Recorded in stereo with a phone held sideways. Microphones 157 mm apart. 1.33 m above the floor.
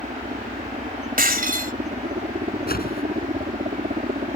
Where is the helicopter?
50° right (ahead or behind).